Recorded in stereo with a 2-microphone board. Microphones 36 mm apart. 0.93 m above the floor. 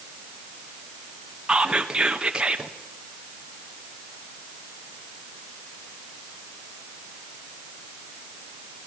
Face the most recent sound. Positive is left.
turn(degrees=-25)  # may be behind; listen again after turning